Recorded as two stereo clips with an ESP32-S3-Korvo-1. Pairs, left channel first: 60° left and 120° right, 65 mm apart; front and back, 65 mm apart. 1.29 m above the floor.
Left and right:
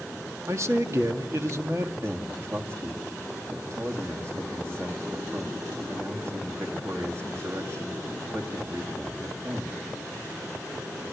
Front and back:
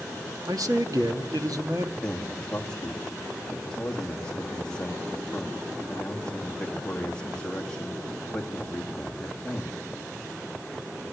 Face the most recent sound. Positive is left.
turn(degrees=-75)